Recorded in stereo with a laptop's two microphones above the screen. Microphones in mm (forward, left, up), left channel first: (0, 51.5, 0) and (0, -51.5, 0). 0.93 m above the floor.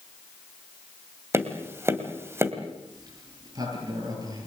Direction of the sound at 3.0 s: 40° right (ahead or behind).